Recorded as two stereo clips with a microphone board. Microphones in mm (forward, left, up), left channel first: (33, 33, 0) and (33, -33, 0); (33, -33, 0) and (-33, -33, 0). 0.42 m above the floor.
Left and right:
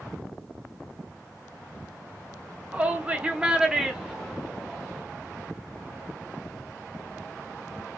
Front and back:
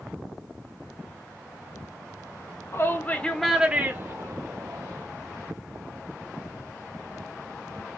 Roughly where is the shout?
Ahead right.